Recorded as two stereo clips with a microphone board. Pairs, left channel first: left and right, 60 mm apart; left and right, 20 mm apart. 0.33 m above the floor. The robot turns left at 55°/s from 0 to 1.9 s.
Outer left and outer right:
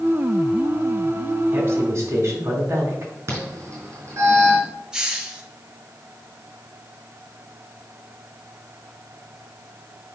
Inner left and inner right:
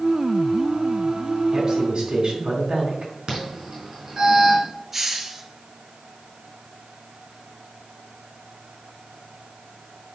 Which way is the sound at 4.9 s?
15° right (ahead or behind).